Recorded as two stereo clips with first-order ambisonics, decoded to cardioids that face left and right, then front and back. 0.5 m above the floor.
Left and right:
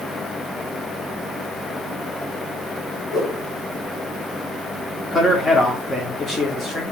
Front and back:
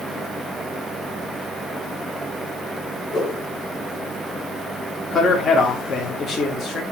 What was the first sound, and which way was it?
A whoosh, 65° left.